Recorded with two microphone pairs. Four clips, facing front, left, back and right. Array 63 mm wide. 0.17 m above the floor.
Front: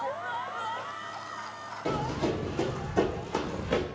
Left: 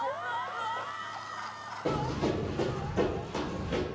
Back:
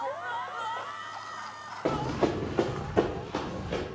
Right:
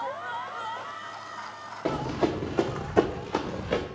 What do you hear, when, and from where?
1.9 s running footsteps: 145° right, 1.0 m; by 3.8 s 55° right, 0.8 m